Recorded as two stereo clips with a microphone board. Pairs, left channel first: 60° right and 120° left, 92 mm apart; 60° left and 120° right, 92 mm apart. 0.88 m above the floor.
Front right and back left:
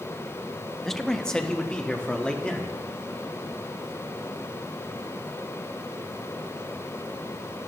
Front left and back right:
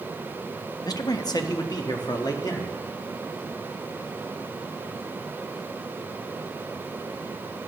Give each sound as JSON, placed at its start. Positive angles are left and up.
{"t": 0.8, "sound": "a man speaking", "azimuth_deg": 25, "distance_m": 0.7}